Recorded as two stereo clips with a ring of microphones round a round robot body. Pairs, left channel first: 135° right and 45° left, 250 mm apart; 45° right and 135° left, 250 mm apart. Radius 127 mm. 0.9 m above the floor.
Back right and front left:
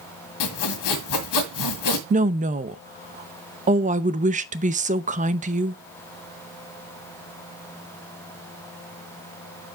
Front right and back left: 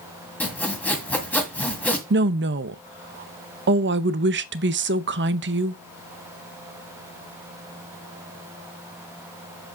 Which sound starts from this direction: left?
A woman speaking, at 2.1 s.